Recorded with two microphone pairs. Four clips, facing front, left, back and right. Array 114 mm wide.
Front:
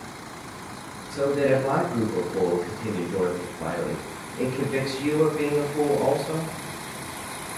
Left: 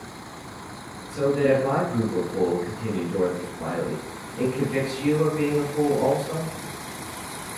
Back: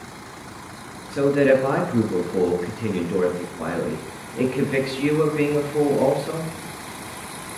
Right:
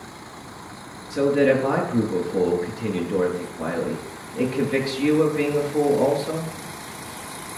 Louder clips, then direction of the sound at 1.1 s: Right 2 dB, back 5 dB; 135° right.